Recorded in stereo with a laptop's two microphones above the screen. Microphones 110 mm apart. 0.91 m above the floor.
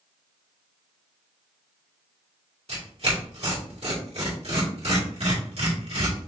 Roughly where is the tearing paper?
Right.